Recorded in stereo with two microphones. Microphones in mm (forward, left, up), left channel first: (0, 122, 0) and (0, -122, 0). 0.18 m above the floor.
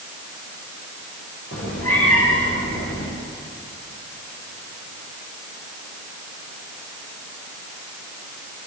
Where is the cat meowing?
70° left (ahead or behind), 7.5 m.